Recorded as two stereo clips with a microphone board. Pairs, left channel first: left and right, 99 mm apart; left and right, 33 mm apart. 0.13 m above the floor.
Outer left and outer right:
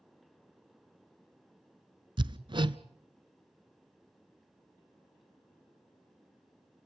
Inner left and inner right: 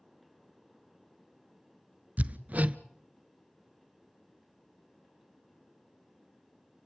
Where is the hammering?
50° right (ahead or behind), 0.6 m.